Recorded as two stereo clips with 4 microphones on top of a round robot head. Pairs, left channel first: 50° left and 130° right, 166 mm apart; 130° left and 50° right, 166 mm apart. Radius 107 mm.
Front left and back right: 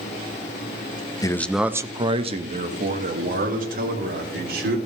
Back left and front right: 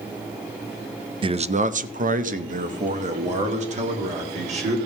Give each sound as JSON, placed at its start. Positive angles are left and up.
{"t": 1.2, "sound": "a man speaking", "azimuth_deg": -5, "distance_m": 0.6}